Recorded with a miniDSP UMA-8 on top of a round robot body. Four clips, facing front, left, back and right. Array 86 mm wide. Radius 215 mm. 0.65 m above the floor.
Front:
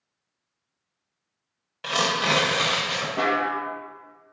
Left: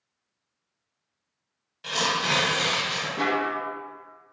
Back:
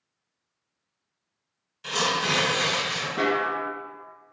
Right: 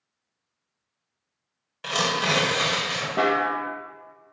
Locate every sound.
1.8 s tearing paper: 40° right, 1.5 m
3.2 s a snare drum: 75° right, 0.5 m